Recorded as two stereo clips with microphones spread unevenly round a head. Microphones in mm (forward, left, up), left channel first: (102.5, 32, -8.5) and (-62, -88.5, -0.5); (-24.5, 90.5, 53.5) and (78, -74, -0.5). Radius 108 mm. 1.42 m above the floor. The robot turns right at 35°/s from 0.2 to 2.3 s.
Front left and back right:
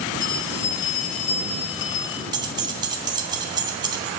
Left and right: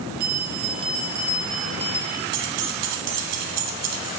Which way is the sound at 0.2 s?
10° right.